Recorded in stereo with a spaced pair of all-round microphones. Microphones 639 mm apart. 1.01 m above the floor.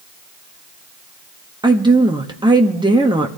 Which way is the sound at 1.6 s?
5° right (ahead or behind).